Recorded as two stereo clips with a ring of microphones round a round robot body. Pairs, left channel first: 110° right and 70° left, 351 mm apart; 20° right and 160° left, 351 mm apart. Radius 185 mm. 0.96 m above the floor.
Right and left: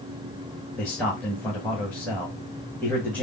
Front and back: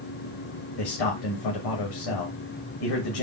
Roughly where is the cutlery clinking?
I don't hear cutlery clinking.